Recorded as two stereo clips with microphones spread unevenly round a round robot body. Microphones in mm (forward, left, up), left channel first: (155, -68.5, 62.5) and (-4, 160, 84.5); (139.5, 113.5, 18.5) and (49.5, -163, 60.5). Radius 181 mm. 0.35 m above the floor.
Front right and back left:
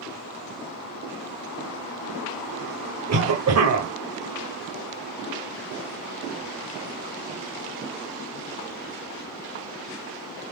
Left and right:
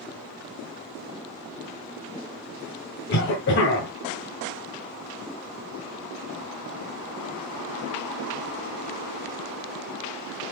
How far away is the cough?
About 1.7 m.